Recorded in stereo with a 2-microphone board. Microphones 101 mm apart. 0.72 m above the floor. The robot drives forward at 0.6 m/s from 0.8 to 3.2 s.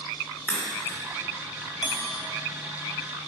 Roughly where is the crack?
Centre.